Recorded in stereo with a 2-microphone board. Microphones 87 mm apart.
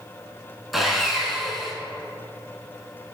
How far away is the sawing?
About 0.7 m.